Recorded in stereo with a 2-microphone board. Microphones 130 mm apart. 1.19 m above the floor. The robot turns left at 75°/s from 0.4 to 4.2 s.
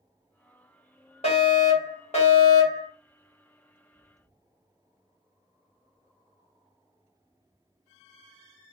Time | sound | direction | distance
1.2 | a fire alarm | 125° left | 2.5 m